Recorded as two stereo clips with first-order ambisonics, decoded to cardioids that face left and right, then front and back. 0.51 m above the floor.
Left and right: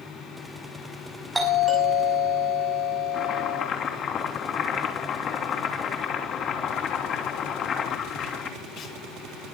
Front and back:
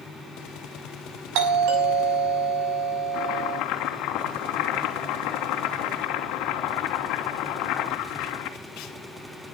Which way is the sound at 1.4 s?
175° right.